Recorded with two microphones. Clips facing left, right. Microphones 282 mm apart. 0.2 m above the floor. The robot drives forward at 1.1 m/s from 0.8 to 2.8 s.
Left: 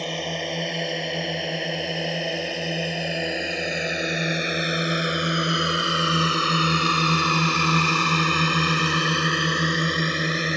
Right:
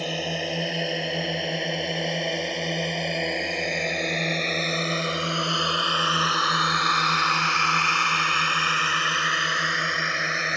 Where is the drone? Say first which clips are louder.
Even; 5° right (ahead or behind); by 10.6 s 45° left (ahead or behind).